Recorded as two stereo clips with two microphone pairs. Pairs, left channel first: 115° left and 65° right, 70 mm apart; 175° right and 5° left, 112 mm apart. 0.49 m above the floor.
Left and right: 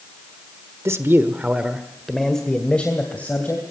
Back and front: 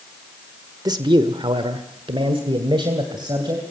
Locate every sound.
0.8 s a man speaking: 35° right, 1.3 m; by 3.6 s 50° left, 2.5 m